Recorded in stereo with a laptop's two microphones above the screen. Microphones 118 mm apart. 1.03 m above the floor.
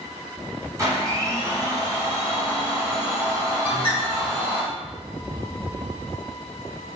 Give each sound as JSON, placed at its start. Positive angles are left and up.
{"t": 0.8, "sound": "a blender", "side_deg": -30, "distance_m": 1.3}
{"t": 3.6, "sound": "a bird", "side_deg": -10, "distance_m": 1.9}